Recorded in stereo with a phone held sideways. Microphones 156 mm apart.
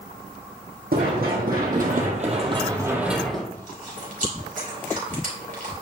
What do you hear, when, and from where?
0.9 s running footsteps: 75° right (ahead or behind), 3 m; by 3.4 s 5° left (ahead or behind), 2 m
3.5 s chewing: 60° right (ahead or behind), 3 m